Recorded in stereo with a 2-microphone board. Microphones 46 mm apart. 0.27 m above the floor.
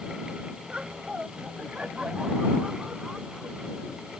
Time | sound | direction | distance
0.7 | laughter | 20° right (ahead or behind) | ?